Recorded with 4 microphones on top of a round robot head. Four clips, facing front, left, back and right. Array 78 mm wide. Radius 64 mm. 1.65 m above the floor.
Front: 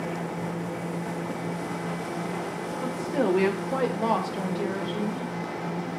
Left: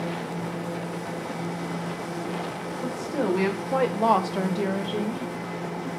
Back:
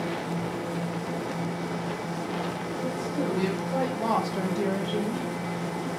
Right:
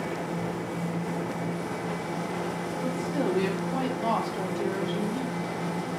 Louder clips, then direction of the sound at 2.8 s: Left 2 dB, front 4 dB; 20° left.